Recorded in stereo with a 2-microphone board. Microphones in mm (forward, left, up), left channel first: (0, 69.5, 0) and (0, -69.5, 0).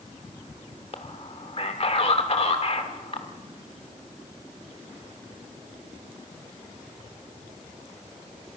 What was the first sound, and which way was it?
A man speaking, 50° left (ahead or behind).